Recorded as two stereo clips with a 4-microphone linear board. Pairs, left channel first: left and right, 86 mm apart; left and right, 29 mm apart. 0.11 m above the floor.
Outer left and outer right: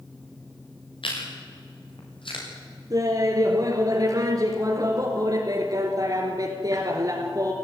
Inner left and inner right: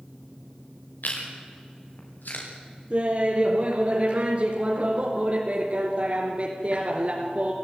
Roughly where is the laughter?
Right.